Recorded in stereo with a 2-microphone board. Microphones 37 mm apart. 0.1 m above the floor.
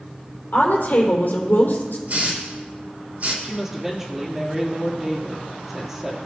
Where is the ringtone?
I don't hear a ringtone.